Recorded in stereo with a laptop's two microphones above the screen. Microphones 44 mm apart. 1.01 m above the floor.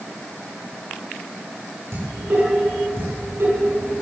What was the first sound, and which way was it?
Dishes clattering, 70° right (ahead or behind).